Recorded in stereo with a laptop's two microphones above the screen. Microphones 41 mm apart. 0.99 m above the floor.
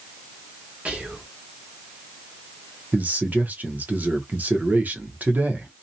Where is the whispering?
30° right (ahead or behind), 1.3 m.